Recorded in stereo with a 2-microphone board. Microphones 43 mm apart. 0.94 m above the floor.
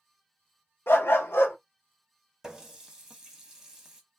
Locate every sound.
0.9 s a dog barking: 65° left (ahead or behind), 0.7 m
2.4 s a running tap: 10° right (ahead or behind), 0.8 m